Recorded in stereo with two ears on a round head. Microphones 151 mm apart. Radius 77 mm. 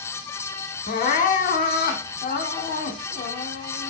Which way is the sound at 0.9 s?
50° left (ahead or behind).